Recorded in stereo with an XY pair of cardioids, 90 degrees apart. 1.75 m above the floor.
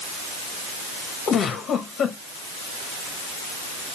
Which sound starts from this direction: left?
A giggle, at 1.3 s.